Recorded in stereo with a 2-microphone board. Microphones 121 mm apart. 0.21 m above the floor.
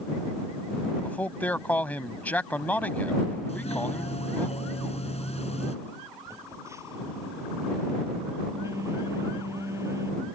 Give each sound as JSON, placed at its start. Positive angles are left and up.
{"t": 1.0, "sound": "a man speaking", "side_deg": 15}
{"t": 3.5, "sound": "a doorbell", "side_deg": 60}
{"t": 6.3, "sound": "a phone buzzing", "side_deg": -25}